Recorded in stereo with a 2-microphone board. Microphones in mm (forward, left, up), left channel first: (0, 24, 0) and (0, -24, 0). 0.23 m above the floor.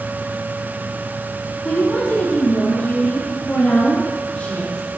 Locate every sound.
1.6 s a woman speaking: 35° left (ahead or behind), 4 m; by 4.8 s 25° left (ahead or behind), 5.5 m